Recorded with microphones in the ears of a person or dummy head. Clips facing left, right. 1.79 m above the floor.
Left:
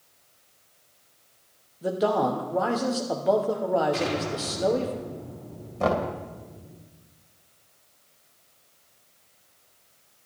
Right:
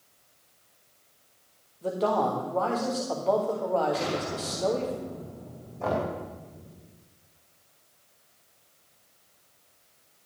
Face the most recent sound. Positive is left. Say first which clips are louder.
# left 4 dB
turn(degrees=80)